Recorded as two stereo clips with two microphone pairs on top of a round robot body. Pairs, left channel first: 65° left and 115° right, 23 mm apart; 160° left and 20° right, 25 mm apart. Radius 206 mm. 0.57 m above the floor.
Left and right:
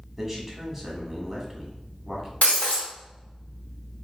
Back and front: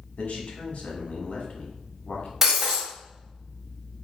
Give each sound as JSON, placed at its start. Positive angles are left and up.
{"t": 0.2, "sound": "a man speaking", "azimuth_deg": 170, "distance_m": 1.2}
{"t": 2.4, "sound": "breaking glass", "azimuth_deg": 60, "distance_m": 1.8}